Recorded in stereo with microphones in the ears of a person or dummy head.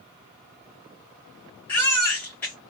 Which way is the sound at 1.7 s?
10° left (ahead or behind).